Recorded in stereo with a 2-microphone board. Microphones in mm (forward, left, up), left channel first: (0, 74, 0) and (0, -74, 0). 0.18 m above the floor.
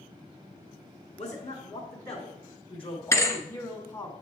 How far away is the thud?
About 1.0 m.